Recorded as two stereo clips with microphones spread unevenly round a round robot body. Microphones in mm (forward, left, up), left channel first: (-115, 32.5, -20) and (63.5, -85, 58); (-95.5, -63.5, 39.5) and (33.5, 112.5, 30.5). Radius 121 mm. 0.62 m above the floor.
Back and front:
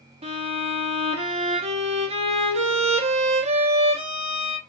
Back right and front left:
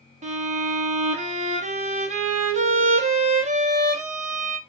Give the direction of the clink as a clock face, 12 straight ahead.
No clink in this recording.